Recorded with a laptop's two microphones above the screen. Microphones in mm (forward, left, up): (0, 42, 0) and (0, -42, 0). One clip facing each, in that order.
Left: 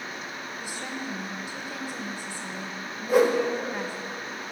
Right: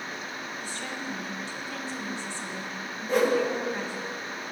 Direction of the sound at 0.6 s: 15° left (ahead or behind).